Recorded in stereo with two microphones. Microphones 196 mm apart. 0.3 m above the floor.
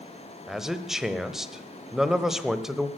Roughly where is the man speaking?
Centre.